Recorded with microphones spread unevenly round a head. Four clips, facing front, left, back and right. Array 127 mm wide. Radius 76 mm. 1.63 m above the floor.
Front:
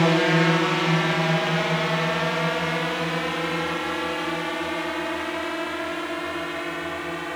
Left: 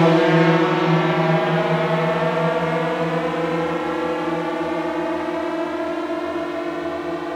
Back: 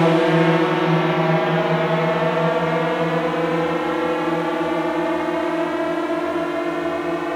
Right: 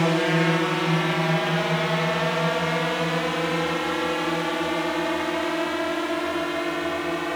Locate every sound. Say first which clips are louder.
0.0 s a drone: left 7 dB, back 4 dB; 130° left; by 7.3 s 160° left